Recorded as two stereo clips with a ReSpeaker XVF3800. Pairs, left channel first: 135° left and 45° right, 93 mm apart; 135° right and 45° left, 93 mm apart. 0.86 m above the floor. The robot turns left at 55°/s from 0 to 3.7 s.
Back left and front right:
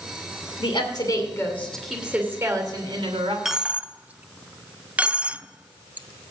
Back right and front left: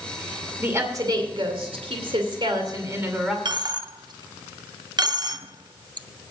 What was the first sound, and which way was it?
A woman speaking, 115° left.